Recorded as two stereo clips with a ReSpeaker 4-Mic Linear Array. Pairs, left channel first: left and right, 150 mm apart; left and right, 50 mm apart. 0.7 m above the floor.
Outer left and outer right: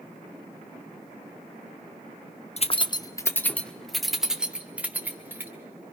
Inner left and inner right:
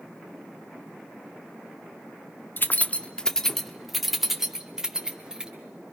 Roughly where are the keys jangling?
Left.